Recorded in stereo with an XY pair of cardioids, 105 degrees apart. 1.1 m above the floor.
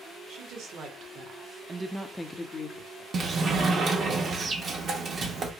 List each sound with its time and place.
0.3 s a woman speaking: 70° right, 1.6 m; by 3.0 s 65° left, 0.9 m
3.1 s a sliding door: 50° right, 0.9 m